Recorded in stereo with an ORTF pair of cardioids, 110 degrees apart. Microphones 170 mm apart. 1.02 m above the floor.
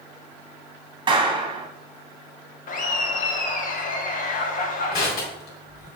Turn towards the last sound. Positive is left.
turn(degrees=70)